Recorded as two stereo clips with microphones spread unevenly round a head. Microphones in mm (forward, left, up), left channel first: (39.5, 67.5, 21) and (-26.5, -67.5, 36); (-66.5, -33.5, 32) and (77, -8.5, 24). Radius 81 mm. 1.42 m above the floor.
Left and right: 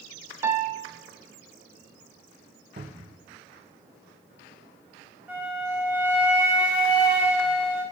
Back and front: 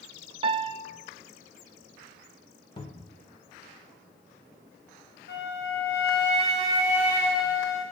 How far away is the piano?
About 0.6 m.